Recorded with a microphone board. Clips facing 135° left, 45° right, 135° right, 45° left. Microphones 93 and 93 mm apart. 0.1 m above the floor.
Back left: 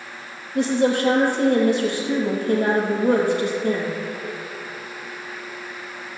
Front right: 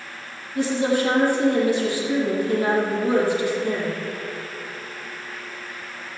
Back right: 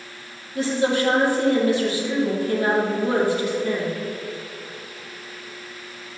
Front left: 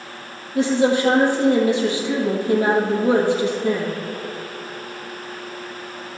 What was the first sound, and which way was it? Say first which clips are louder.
A woman speaking: back left 2 dB, front left 4 dB; 110° left.